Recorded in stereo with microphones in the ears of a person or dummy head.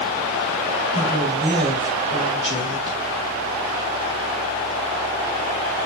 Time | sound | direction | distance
0.9 | a woman speaking | 20° right (ahead or behind) | 1.5 m